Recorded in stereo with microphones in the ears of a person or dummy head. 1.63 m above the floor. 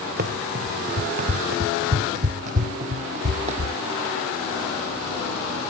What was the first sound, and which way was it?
Running footsteps, 55° right (ahead or behind).